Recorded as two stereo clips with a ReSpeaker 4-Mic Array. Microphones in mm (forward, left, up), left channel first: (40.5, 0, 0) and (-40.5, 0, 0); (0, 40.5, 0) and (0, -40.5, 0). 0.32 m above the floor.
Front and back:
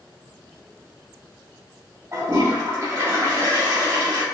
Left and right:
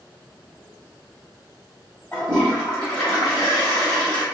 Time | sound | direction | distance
2.1 | a toilet flushing | 145° left | 1.8 m